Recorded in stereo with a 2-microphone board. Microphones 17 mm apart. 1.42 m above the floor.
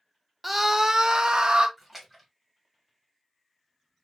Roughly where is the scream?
Centre.